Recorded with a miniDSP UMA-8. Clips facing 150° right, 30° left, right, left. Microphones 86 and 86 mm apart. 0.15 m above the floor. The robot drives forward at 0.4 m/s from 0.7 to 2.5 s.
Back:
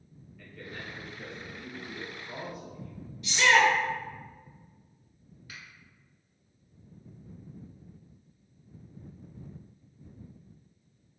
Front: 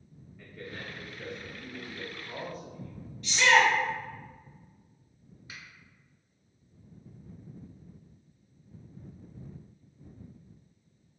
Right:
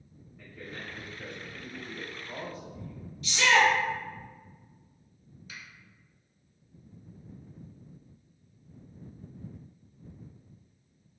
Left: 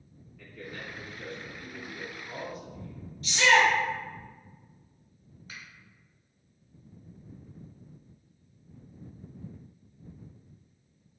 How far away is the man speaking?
About 1.5 m.